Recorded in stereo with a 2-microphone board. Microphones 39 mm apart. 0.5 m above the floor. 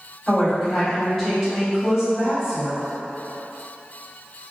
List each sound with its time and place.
0.3 s a woman speaking: 5° left (ahead or behind), 1.8 m